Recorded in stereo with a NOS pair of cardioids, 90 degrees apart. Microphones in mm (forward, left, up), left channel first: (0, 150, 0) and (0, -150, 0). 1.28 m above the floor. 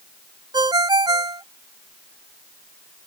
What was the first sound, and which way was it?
A ringtone, 15° right.